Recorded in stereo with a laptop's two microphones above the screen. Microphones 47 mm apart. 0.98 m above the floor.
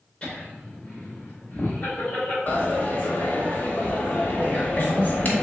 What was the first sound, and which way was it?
Laughter, 25° left (ahead or behind).